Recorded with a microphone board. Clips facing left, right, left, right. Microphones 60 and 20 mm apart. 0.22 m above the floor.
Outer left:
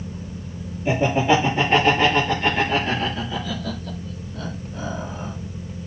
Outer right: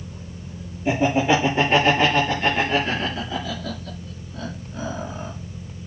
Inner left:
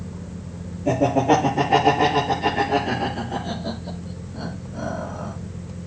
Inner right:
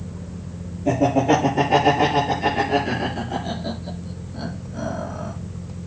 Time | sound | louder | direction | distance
0.8 | laughter | even, even | 5° right (ahead or behind) | 5.5 m